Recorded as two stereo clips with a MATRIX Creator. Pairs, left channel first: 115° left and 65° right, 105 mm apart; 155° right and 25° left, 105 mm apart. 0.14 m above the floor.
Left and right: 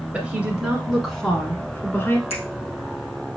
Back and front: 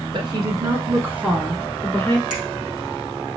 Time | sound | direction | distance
0.1 | a woman speaking | 10° left | 1.9 m
2.3 | a finger snap | 100° left | 3 m